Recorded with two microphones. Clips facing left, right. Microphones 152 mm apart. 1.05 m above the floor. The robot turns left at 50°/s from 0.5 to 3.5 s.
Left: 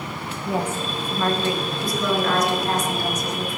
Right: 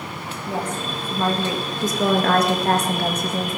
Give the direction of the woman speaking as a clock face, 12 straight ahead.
11 o'clock.